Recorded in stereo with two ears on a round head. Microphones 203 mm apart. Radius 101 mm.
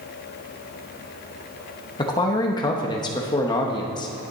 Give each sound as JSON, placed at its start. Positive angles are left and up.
{"t": 2.0, "sound": "a man speaking", "side_deg": 20, "distance_m": 0.9}